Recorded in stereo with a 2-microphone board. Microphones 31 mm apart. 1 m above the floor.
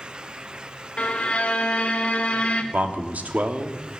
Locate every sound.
1.0 s a violin: 35° left (ahead or behind), 1.3 m
2.7 s a man speaking: 55° right (ahead or behind), 1.6 m